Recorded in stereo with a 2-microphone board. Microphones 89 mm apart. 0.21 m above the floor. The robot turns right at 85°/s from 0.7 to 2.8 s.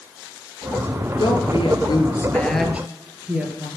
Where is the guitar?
I don't hear a guitar.